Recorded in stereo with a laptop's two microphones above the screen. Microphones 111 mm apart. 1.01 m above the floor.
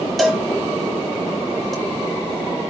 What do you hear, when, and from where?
0.2 s a cowbell: centre (ahead or behind), 1.3 m